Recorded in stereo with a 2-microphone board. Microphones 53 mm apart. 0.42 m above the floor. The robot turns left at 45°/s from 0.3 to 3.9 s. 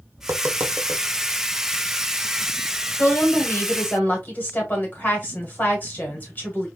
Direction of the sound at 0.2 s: 50° right (ahead or behind).